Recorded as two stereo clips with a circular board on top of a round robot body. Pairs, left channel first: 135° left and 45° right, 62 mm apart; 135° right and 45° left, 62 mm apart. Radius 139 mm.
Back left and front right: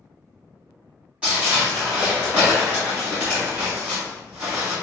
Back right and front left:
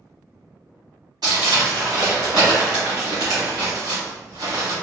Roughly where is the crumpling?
Ahead left.